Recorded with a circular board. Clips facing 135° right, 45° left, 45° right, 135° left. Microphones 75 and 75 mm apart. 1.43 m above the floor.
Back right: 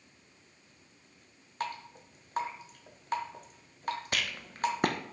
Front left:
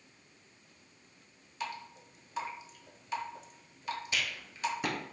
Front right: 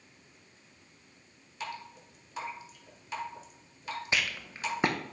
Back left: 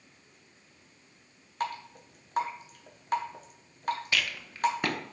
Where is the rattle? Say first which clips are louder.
Back right 1 dB, even; 110° right, 0.7 m.